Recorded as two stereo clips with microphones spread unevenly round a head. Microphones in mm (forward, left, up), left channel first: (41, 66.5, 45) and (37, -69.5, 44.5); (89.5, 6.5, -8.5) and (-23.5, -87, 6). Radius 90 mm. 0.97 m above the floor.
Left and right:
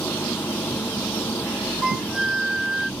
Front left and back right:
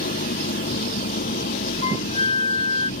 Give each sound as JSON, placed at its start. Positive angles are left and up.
{"t": 0.0, "sound": "an engine running", "azimuth_deg": 10}
{"t": 1.8, "sound": "a flute", "azimuth_deg": -5}